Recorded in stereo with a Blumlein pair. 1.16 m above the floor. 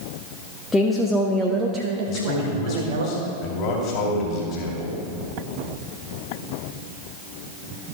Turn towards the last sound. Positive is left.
turn(degrees=35)